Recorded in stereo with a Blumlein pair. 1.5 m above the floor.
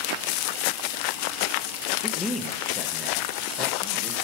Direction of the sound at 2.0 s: 15° left.